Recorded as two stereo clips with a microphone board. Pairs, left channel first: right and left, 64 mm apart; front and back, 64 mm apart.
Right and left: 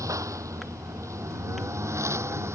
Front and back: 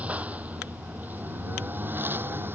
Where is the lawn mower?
115° left; by 2.6 s 130° left.